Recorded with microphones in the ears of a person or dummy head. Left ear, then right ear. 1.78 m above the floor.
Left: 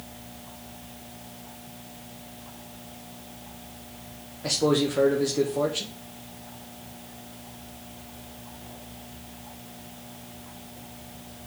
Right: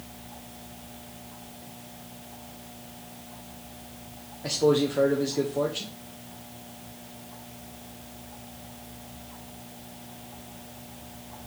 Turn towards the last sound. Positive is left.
turn(degrees=0)  # may be behind; listen again after turning